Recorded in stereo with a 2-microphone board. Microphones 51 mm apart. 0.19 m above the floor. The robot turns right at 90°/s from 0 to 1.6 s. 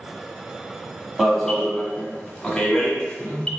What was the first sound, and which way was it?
An alarm, 10° right (ahead or behind).